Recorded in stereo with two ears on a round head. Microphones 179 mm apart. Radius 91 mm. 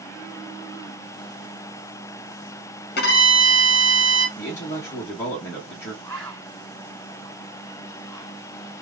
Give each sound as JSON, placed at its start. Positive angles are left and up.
{"t": 3.0, "sound": "a violin", "side_deg": 50, "distance_m": 1.1}
{"t": 4.4, "sound": "a man speaking", "side_deg": 10, "distance_m": 1.4}
{"t": 6.0, "sound": "a bird", "side_deg": 10, "distance_m": 1.8}